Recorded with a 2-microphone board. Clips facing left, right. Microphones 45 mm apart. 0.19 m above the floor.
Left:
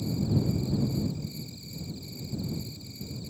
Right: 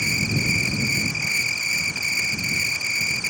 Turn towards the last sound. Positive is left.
turn(degrees=-80)